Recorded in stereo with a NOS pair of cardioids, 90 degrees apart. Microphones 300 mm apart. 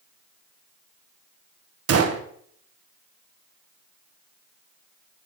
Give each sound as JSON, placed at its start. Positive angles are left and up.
{"t": 1.9, "sound": "a gunshot", "azimuth_deg": -50, "distance_m": 1.5}